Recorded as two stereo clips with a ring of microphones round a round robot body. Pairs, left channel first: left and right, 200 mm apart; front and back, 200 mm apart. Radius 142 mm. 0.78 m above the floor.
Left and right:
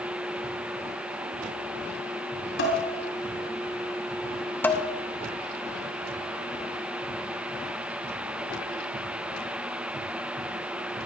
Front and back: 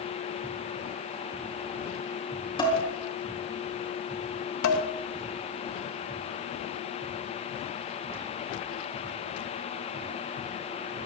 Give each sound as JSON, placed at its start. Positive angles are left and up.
{"t": 2.6, "sound": "dishes clattering", "azimuth_deg": 65, "distance_m": 7.0}
{"t": 4.6, "sound": "dishes clattering", "azimuth_deg": 10, "distance_m": 2.0}